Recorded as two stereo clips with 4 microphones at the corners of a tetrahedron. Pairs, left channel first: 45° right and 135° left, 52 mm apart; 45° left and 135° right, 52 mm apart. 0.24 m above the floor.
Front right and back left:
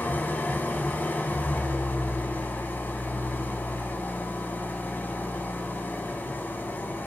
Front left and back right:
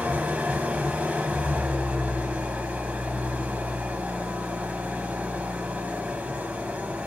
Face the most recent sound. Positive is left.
turn(degrees=-80)